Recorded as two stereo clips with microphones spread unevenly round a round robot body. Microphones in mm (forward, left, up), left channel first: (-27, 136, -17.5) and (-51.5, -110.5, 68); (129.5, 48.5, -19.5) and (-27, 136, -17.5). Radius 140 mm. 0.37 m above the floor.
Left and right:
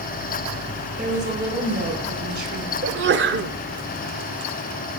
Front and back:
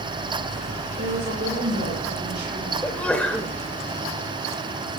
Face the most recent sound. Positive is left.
turn(degrees=-100)